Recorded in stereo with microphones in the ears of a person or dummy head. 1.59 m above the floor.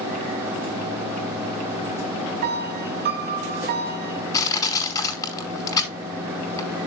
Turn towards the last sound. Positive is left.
turn(degrees=15)  # may be behind; listen again after turning